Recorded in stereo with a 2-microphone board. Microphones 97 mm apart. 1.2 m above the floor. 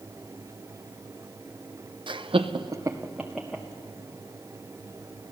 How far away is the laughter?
About 0.9 m.